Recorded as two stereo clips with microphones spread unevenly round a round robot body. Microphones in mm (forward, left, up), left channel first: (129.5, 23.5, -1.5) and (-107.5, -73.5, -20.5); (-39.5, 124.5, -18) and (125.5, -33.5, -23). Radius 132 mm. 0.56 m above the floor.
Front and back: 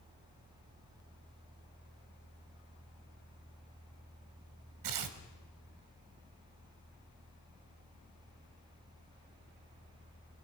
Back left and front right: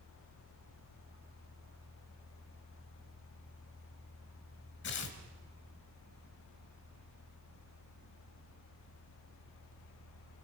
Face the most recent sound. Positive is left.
turn(degrees=-170)